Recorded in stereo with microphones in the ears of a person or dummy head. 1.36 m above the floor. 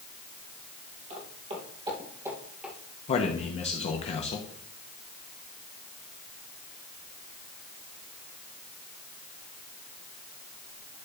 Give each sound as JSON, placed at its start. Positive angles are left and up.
{"t": 1.1, "sound": "footsteps", "side_deg": -35, "distance_m": 2.5}
{"t": 3.1, "sound": "a man speaking", "side_deg": 30, "distance_m": 1.2}